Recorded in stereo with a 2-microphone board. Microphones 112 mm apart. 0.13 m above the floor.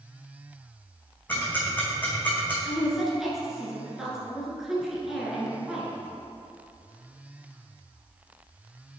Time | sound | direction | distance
1.3 | ticking | 15° left (ahead or behind) | 1.6 m
2.6 | a woman speaking | 5° right (ahead or behind) | 1.5 m